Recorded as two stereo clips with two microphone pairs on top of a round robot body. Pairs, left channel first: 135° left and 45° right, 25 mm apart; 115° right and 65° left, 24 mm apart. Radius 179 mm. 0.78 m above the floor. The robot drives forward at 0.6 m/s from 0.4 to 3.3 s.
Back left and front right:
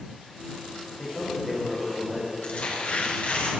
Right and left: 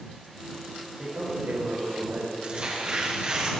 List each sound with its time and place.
1.0 s a man speaking: 50° left, 6 m; by 2.3 s 55° left, 5.5 m
2.4 s tearing paper: 110° left, 6.5 m; by 3.5 s 115° left, 7 m